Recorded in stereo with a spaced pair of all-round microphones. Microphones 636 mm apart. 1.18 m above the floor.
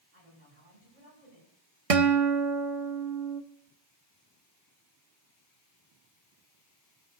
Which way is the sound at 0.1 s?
75° right (ahead or behind).